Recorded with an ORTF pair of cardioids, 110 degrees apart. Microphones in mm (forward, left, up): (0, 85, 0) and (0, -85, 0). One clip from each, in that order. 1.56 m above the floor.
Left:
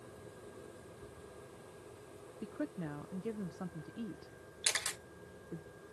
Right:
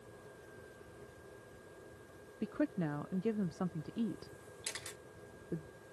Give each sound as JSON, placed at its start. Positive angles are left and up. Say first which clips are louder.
{"t": 2.4, "sound": "a woman speaking", "louder": "right 5 dB", "azimuth_deg": -30}
{"t": 4.6, "sound": "a camera shutter", "louder": "left 10 dB", "azimuth_deg": 55}